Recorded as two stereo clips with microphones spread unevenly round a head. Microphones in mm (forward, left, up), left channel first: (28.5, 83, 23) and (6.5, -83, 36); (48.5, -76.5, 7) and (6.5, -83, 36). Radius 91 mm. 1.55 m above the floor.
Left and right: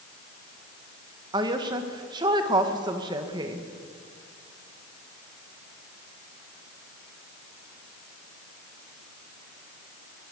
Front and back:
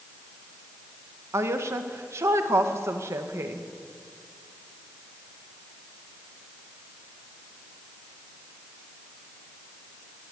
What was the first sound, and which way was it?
A woman speaking, 165° right.